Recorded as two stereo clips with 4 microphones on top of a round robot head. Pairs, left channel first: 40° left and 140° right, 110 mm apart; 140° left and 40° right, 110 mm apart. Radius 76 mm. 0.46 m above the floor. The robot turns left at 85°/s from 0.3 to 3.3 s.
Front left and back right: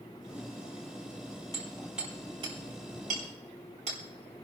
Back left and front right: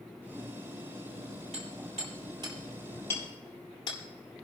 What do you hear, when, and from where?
1.5 s hammering: 15° right, 8.5 m; by 4.0 s 165° right, 8.5 m